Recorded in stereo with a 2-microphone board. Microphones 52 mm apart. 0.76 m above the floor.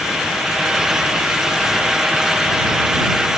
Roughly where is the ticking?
I don't hear ticking.